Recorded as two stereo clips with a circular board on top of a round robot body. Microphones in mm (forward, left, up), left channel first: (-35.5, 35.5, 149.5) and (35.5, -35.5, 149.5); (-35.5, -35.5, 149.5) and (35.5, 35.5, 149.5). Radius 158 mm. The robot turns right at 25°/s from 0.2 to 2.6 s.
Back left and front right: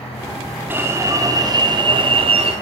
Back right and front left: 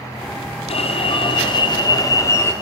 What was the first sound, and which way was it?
An alarm, 115° right.